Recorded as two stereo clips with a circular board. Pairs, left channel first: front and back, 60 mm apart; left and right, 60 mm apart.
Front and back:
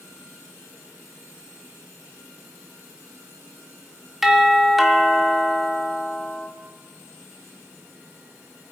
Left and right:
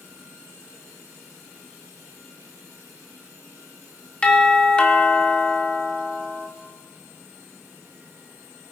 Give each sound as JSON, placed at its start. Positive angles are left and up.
{"t": 4.2, "sound": "a doorbell", "azimuth_deg": 100, "distance_m": 1.5}